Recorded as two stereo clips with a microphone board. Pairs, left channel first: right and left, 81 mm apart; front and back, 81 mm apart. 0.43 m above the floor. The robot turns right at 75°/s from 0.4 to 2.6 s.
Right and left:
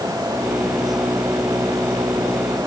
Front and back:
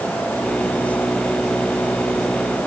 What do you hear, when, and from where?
Only background noise.